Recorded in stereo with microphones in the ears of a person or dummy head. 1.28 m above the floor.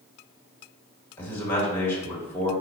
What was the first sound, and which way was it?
A man speaking, 10° left (ahead or behind).